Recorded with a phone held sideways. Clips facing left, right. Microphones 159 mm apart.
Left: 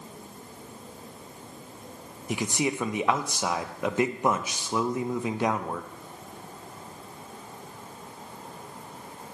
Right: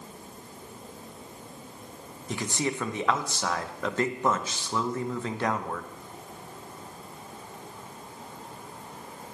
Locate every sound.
2.3 s a man speaking: 15° left (ahead or behind), 0.6 m